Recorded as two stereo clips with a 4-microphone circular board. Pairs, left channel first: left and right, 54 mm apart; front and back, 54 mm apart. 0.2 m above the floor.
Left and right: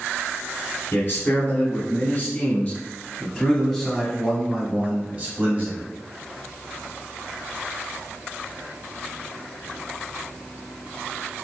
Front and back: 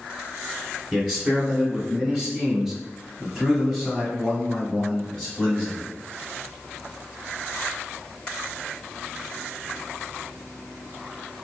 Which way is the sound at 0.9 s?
105° left.